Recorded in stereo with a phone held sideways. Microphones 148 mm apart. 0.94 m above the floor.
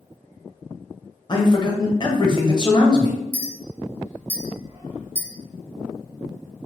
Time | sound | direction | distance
1.3 | a man speaking | 35° left (ahead or behind) | 0.7 m
3.3 | a clink | 15° right (ahead or behind) | 1.0 m